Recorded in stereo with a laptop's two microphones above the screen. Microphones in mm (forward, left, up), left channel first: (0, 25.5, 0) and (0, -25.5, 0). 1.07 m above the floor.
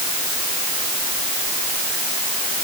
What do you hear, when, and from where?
Only background noise.